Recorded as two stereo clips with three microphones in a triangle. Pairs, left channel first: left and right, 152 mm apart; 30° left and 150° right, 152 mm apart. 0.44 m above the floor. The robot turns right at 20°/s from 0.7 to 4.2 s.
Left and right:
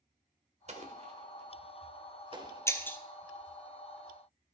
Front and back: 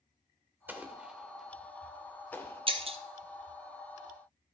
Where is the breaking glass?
160° left, 0.9 m; by 3.0 s 170° left, 0.9 m.